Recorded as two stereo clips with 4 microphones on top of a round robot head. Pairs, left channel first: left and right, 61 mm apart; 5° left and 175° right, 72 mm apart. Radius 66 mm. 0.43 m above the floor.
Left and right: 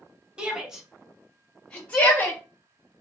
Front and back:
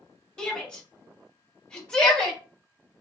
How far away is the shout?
About 1.2 m.